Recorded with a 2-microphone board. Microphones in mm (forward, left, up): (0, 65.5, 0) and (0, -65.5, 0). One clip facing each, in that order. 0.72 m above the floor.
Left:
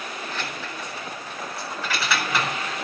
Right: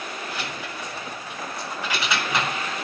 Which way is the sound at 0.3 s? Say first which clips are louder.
Even; 10° right (ahead or behind).